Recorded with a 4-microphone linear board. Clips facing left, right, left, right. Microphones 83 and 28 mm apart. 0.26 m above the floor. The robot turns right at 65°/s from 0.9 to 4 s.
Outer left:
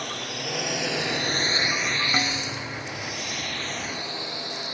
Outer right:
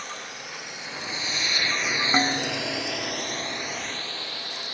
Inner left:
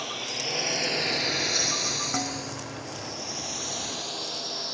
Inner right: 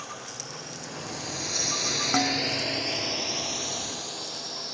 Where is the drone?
65° left (ahead or behind); by 4.7 s 20° left (ahead or behind).